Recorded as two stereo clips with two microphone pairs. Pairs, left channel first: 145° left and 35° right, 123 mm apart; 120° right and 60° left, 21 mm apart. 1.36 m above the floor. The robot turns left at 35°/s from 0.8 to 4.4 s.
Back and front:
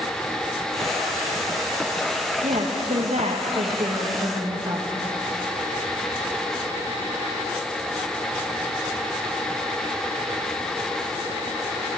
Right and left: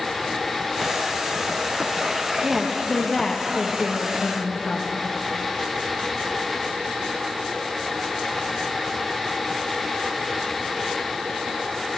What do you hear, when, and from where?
2.4 s a woman speaking: 15° right, 2.0 m; by 4.8 s 85° right, 2.0 m